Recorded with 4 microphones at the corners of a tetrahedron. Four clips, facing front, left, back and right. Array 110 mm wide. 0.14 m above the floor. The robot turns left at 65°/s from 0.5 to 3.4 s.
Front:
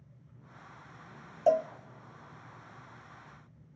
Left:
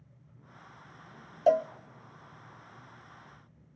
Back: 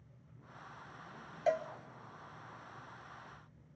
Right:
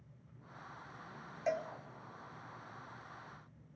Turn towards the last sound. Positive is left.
turn(degrees=-70)